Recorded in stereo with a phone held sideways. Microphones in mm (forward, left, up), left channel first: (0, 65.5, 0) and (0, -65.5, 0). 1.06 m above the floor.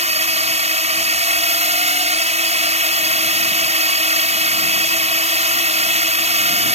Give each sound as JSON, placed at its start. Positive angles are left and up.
{"t": 0.0, "sound": "a drone", "side_deg": -65}